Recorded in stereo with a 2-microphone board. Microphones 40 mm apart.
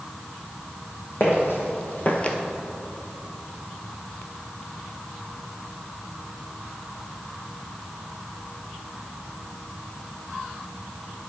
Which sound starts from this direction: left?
Footsteps, at 1.2 s.